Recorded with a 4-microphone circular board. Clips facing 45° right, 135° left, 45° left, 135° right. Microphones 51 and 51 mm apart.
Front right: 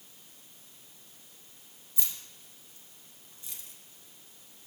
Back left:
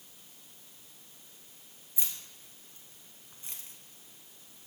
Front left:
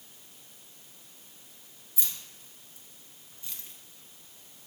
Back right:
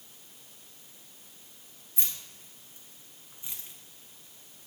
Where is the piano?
I don't hear a piano.